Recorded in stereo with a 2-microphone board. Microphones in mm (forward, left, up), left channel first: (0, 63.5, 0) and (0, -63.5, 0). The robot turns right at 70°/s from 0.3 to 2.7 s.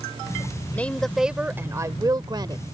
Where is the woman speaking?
155° left; by 2.6 s 75° right.